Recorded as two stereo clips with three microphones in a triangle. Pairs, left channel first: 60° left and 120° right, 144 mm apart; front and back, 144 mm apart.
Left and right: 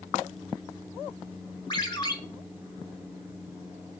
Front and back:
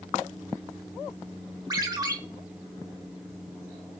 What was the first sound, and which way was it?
A ringtone, 115° left.